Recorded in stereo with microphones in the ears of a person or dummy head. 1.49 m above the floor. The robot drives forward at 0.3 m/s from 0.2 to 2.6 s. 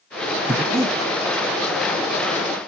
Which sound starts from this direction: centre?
Breathing, at 0.5 s.